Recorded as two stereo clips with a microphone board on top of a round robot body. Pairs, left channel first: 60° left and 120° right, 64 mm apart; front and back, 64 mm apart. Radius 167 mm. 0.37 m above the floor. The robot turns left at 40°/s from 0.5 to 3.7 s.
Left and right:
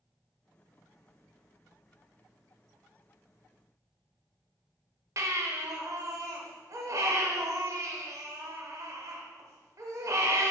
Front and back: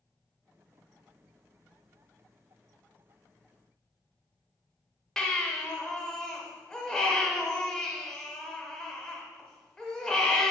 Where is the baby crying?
80° right, 1.1 m.